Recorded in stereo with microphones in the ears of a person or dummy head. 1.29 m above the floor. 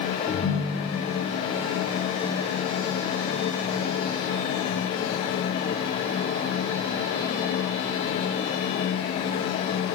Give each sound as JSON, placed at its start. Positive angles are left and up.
{"t": 0.3, "sound": "a ringtone", "side_deg": 30, "distance_m": 1.1}